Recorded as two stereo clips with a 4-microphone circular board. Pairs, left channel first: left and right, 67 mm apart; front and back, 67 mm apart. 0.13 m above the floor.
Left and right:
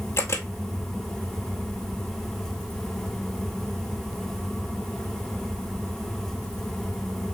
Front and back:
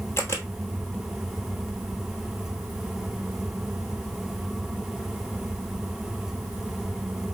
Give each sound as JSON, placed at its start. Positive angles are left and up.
{"t": 0.2, "sound": "a camera shutter", "azimuth_deg": 45, "distance_m": 1.0}